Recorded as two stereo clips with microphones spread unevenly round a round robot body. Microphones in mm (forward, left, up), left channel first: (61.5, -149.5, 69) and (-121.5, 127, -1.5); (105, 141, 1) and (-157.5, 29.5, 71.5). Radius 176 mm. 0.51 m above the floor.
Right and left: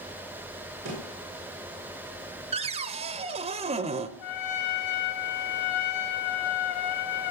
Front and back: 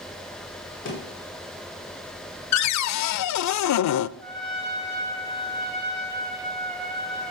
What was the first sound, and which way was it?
A thud, 70° left.